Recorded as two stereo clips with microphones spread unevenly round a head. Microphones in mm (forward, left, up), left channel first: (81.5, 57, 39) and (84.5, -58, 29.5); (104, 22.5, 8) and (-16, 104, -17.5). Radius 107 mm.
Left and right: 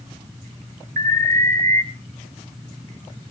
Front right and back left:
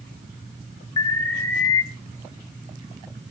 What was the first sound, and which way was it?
An alarm, 100° right.